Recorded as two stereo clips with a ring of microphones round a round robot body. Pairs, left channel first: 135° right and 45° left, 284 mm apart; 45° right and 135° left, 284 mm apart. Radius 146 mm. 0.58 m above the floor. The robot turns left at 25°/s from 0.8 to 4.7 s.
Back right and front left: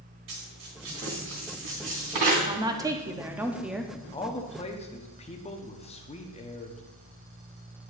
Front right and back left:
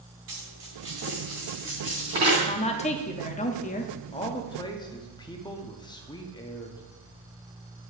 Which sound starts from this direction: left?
A dropped coin, at 0.3 s.